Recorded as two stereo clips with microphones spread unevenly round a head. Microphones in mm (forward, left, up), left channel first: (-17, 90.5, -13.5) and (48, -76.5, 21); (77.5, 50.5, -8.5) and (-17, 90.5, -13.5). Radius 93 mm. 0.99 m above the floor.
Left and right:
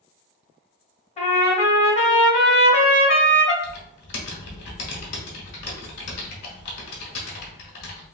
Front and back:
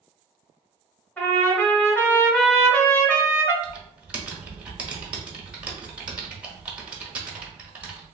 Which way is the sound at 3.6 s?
80° left.